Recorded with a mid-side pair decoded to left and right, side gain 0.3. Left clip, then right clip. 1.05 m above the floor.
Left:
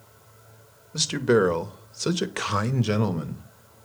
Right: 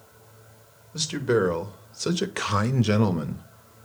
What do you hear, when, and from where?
0.9 s a man speaking: 50° left, 1.0 m; by 3.5 s 30° right, 1.0 m